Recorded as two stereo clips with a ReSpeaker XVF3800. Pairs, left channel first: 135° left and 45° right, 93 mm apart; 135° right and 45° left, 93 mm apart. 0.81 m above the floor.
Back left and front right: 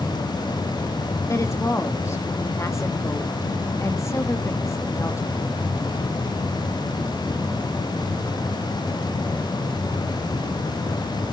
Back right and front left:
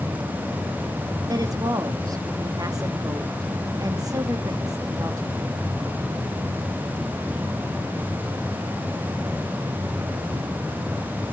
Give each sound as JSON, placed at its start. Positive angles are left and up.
{"t": 1.3, "sound": "a woman speaking", "azimuth_deg": 85, "distance_m": 1.6}